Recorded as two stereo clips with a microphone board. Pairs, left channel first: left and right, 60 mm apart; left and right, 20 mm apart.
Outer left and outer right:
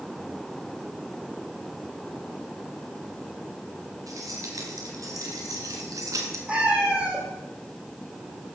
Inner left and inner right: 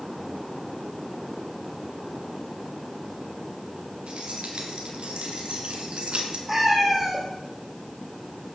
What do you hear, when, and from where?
4.1 s keys jangling: 75° right (ahead or behind), 3.5 m; by 6.4 s 65° right (ahead or behind), 2.5 m
6.5 s a cat meowing: 20° right (ahead or behind), 3.5 m